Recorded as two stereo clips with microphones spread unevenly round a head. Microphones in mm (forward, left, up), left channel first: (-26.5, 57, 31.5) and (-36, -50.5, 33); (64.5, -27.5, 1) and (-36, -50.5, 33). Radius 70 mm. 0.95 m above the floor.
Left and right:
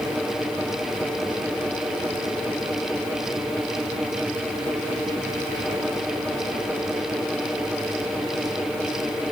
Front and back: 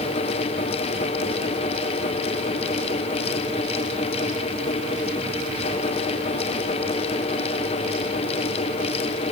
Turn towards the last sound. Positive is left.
No sound to turn to.